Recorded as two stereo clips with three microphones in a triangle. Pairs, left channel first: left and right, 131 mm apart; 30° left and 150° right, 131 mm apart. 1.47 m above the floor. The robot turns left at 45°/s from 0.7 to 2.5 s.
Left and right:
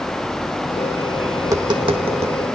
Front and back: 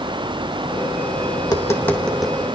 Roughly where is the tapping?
Ahead right.